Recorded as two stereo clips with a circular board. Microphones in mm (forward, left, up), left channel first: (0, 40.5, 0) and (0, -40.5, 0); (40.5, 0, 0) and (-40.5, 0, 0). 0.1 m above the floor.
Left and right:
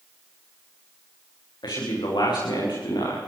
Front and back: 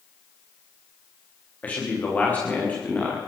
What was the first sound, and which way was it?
A man speaking, 70° left.